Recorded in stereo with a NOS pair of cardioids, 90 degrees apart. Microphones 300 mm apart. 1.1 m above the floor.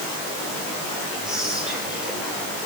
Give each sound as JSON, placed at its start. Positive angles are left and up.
{"t": 1.2, "sound": "whispering", "azimuth_deg": -5, "distance_m": 4.5}